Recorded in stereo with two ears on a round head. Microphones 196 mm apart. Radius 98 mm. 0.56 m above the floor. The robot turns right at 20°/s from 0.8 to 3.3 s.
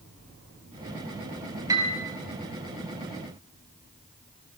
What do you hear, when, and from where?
1.7 s a piano: 15° right (ahead or behind), 3.5 m; by 2.0 s 20° right (ahead or behind), 3.5 m